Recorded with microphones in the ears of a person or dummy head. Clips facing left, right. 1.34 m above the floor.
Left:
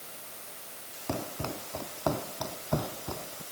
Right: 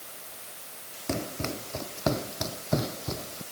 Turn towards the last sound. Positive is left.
turn(degrees=-25)  # may be behind; listen again after turning